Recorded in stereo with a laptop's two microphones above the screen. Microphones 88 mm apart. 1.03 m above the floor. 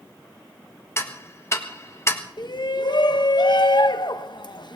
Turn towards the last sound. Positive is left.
turn(degrees=55)  # may be behind; listen again after turning